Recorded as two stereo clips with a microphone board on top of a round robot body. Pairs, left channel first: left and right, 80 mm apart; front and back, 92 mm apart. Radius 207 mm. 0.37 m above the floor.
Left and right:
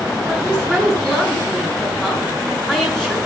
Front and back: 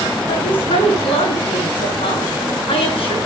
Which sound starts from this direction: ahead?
A woman speaking, at 0.3 s.